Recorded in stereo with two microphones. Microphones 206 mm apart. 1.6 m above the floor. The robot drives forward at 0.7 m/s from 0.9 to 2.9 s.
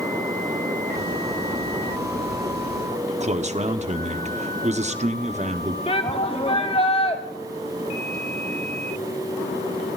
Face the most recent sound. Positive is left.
turn(degrees=30)  # may be behind; listen again after turning